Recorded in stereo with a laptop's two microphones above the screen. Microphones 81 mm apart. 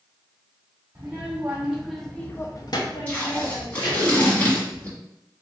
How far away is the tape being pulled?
About 1.3 m.